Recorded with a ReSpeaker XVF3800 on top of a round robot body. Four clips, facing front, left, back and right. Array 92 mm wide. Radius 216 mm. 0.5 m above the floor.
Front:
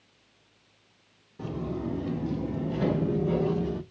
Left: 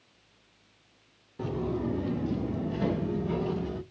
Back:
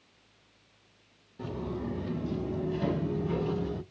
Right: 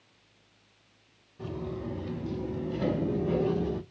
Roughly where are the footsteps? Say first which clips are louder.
Left 5 dB, front 3 dB; left.